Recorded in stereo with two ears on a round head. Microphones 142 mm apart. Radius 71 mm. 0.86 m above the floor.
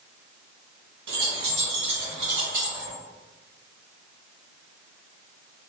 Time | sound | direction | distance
1.1 | keys jangling | 80° right | 1.1 m